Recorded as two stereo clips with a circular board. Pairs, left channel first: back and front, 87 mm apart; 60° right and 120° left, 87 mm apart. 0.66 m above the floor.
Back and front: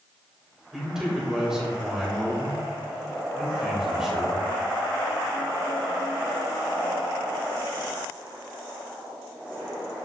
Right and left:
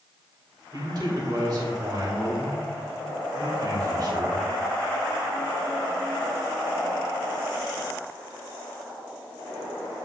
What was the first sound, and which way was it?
A man speaking, 85° left.